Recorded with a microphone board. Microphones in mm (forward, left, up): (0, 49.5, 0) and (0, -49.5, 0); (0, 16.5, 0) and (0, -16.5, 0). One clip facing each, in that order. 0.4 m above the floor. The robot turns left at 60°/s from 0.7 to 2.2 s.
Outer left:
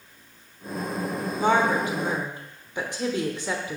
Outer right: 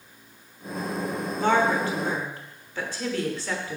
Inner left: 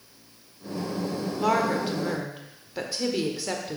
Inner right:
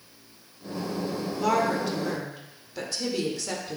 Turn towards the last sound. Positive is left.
turn(degrees=20)  # may be behind; listen again after turning